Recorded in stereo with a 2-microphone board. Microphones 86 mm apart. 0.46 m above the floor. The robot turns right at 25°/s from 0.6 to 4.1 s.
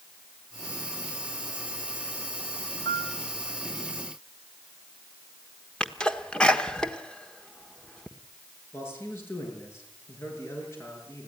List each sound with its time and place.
2.9 s a piano: 55° left (ahead or behind), 3 m; by 3.1 s 50° left (ahead or behind), 3 m
5.8 s a sneeze: 10° left (ahead or behind), 1.4 m
8.7 s a man speaking: 30° left (ahead or behind), 7 m